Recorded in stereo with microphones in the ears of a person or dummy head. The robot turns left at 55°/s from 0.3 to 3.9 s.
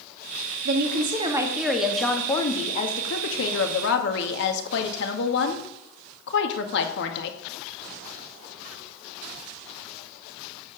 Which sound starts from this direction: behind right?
A woman speaking, at 0.7 s.